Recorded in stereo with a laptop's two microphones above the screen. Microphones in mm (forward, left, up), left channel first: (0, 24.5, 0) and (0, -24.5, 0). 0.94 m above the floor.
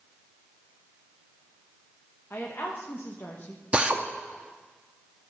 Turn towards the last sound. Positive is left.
turn(degrees=-25)  # may be behind; listen again after turning